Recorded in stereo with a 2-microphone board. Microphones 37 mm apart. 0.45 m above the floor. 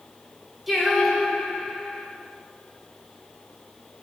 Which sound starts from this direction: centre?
Singing, at 0.7 s.